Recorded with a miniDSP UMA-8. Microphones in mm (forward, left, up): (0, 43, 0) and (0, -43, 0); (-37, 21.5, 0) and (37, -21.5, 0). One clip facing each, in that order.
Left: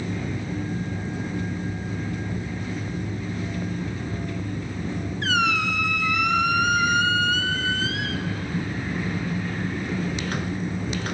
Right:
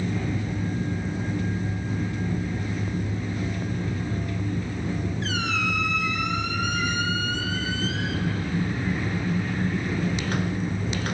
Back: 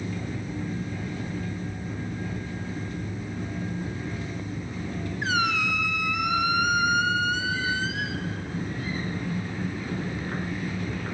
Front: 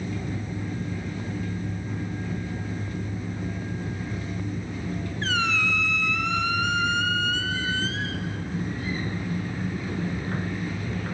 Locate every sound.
5.2 s a squeak: 75° left, 1.6 m